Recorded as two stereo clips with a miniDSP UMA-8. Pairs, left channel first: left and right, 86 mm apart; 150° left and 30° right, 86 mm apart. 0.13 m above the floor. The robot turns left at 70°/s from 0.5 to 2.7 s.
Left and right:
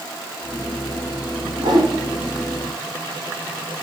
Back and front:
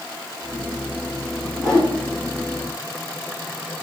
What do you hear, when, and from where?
1.6 s a whoosh: 120° right, 3 m; by 1.9 s 140° right, 3 m